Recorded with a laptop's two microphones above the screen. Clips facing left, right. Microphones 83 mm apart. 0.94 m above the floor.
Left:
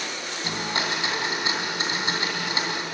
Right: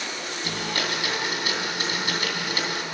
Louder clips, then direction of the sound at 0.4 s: Left 1 dB; 25° left (ahead or behind).